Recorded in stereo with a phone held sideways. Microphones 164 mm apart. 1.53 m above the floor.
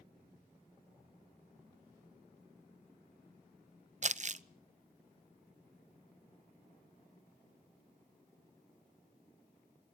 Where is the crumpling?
45° right (ahead or behind), 0.5 m.